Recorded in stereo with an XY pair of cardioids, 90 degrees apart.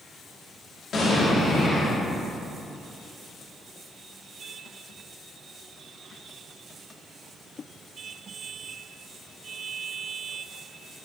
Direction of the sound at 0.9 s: 60° left.